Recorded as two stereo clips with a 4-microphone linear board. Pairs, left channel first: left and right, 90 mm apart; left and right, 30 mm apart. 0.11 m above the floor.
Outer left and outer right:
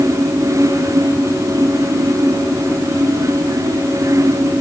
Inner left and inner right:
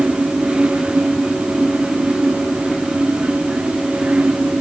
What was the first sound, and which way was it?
Only background noise.